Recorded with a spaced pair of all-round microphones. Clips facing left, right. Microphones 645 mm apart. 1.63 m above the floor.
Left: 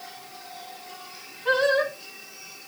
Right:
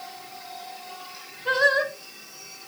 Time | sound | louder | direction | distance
1.4 | singing | left 3 dB | 10° right (ahead or behind) | 1.8 m